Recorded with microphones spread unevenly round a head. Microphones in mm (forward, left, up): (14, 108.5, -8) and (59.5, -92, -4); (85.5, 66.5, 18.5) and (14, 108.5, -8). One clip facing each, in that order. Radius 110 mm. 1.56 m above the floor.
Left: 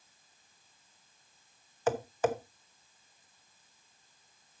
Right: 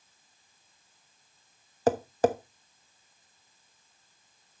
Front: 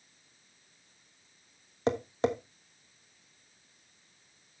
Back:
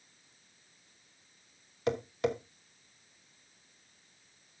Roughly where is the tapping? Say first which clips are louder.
Right 5 dB, front 2 dB; ahead right.